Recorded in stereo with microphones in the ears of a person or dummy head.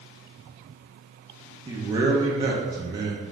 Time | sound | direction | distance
1.7 | a man speaking | 15° right (ahead or behind) | 0.7 m